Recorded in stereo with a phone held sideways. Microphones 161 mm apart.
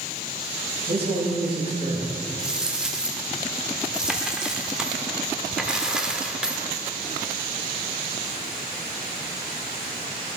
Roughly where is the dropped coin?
Centre.